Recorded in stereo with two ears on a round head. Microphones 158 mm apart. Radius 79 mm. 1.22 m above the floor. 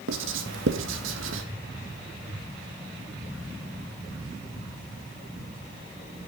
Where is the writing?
80° right, 1.6 m.